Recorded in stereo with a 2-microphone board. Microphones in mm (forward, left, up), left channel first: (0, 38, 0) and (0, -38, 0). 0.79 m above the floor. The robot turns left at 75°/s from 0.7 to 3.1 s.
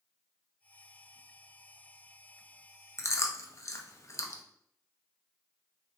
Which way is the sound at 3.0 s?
40° left (ahead or behind).